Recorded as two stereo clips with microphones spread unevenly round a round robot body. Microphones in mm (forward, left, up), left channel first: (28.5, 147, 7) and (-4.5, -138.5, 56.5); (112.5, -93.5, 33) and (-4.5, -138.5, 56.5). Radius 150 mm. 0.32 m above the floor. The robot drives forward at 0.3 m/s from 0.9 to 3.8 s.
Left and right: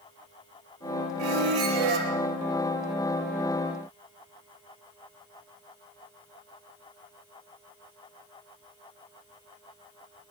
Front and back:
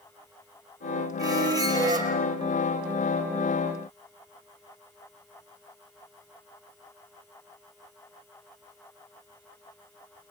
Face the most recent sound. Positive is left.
turn(degrees=-105)